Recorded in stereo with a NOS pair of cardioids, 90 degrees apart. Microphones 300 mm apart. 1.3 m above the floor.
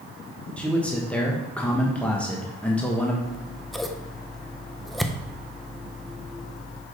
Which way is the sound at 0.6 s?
5° left.